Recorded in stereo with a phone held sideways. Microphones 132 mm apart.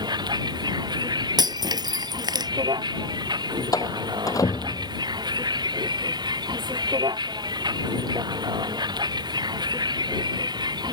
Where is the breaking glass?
30° right (ahead or behind).